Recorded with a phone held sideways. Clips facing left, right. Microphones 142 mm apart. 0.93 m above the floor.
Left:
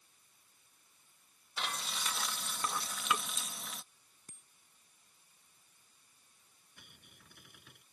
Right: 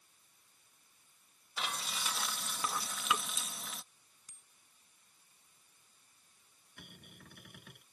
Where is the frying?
5° right (ahead or behind).